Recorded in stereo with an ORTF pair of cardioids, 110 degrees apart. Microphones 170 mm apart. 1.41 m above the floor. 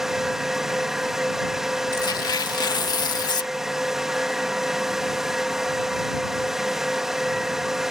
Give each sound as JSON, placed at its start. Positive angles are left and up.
{"t": 0.0, "sound": "a fan", "azimuth_deg": -5}
{"t": 1.9, "sound": "tearing paper", "azimuth_deg": 25}